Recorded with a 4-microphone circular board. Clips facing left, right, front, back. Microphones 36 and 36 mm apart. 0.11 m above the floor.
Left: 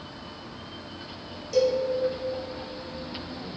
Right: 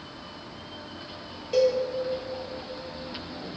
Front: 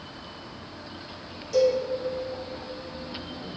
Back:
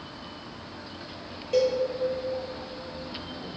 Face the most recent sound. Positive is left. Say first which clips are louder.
# right 1 dB, front 2 dB
turn(degrees=-140)